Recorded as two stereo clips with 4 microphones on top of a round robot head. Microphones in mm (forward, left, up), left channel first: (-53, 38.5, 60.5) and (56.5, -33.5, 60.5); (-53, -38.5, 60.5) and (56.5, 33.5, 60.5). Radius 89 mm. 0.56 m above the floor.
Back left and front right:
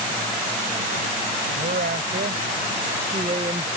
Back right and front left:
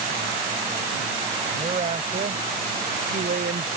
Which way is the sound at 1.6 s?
20° right.